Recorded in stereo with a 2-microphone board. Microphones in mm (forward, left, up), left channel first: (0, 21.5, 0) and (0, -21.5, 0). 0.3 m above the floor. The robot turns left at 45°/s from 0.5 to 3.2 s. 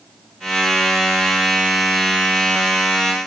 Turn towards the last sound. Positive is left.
No sound to turn to.